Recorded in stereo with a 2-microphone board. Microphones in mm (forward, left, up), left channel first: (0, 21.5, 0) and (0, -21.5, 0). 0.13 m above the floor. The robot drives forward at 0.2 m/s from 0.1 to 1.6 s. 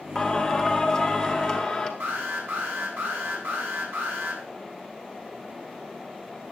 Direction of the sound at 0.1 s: 10° left (ahead or behind).